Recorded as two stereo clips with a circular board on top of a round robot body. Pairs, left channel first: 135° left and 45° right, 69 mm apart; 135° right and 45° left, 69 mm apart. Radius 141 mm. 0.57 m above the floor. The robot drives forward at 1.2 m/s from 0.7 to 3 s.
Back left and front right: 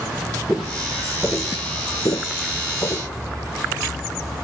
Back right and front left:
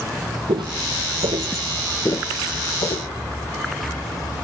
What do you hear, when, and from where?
0.5 s footsteps: 40° left, 1.6 m; by 3.1 s 160° right, 1.6 m